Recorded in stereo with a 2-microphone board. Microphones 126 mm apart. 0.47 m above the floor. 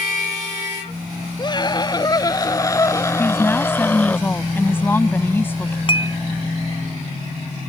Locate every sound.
1.4 s a scream: 35° left (ahead or behind); by 4.2 s 10° left (ahead or behind)
3.2 s a woman speaking: 15° left (ahead or behind)
5.9 s dishes clattering: 40° left (ahead or behind)